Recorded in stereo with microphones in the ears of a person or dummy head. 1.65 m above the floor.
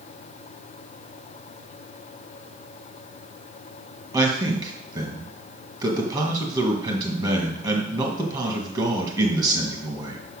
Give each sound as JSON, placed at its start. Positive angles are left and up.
{"t": 4.1, "sound": "a man speaking", "side_deg": -25, "distance_m": 2.0}